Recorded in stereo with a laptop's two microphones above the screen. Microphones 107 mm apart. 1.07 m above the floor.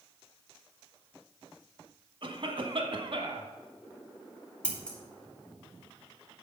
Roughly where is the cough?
Right.